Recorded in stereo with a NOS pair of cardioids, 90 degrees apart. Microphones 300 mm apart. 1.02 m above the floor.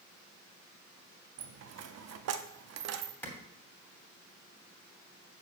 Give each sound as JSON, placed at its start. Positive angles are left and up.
{"t": 1.4, "sound": "a dropped coin", "azimuth_deg": -60, "distance_m": 0.8}
{"t": 3.2, "sound": "a clap", "azimuth_deg": 5, "distance_m": 3.0}